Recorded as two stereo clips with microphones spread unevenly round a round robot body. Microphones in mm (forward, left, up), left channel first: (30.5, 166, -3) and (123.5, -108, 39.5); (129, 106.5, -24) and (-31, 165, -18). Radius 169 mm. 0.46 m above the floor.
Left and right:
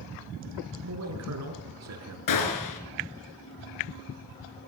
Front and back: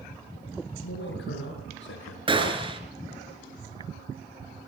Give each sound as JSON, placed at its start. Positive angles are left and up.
{"t": 0.8, "sound": "a man speaking", "azimuth_deg": -40, "distance_m": 6.0}
{"t": 2.3, "sound": "a gunshot", "azimuth_deg": 100, "distance_m": 4.0}